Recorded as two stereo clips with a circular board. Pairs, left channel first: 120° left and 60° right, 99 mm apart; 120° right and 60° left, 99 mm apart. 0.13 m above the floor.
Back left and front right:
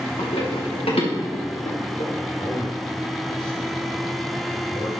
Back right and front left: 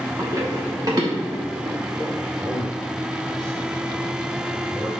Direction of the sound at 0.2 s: 120° left.